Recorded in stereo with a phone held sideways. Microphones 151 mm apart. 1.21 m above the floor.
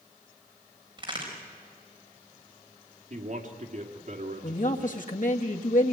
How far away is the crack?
About 5.5 m.